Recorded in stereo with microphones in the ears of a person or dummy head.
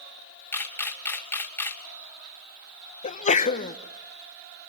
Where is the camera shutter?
10° left (ahead or behind), 2.5 m.